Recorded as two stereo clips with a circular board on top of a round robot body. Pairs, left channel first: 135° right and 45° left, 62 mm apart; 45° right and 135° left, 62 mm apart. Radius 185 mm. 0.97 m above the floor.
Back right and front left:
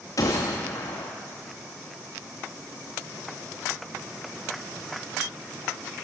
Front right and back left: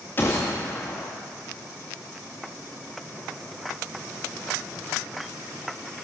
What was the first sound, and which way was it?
A gunshot, 100° right.